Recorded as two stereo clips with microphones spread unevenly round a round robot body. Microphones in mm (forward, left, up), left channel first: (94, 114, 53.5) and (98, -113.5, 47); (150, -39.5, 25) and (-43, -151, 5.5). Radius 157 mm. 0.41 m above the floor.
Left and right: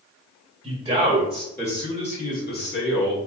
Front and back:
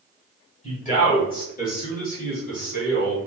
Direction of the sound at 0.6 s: 25° right.